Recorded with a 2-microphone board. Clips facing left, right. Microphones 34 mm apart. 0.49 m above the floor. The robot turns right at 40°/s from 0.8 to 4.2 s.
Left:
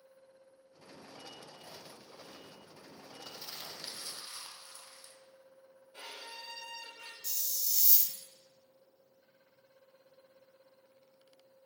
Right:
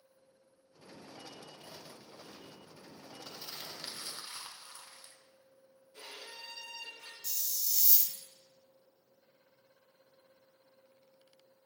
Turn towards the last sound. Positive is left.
turn(degrees=-5)  # may be behind; listen again after turning